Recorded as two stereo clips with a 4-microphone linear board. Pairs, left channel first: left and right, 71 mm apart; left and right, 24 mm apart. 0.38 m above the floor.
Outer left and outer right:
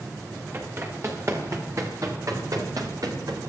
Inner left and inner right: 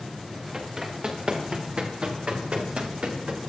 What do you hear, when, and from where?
0.5 s running footsteps: 40° right (ahead or behind), 8 m; by 3.5 s 60° right (ahead or behind), 6.5 m